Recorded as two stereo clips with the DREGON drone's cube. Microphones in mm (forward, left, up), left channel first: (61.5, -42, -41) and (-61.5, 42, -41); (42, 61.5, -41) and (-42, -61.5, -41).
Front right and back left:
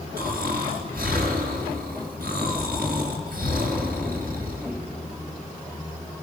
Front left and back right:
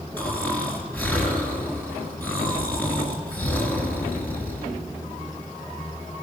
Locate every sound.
0.2 s snoring: 135° left, 5.5 m